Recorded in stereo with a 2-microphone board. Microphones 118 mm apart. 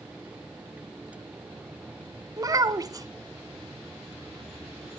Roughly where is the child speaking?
Right.